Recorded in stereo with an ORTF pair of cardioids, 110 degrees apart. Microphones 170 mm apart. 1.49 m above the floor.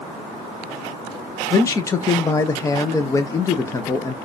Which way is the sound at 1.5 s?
20° left.